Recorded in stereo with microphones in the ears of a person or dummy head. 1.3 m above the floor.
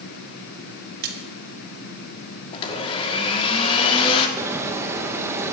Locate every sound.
1.0 s a splash: 60° right (ahead or behind), 1.6 m
2.5 s a blender: 30° left (ahead or behind), 1.4 m
4.4 s a bird: 15° right (ahead or behind), 1.2 m